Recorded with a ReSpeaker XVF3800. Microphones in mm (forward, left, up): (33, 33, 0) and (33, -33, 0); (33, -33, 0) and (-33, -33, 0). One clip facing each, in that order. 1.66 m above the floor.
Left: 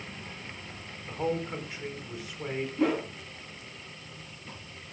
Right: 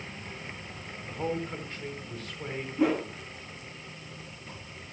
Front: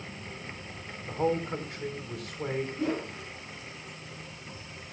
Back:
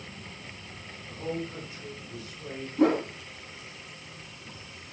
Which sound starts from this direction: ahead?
A man speaking, at 1.1 s.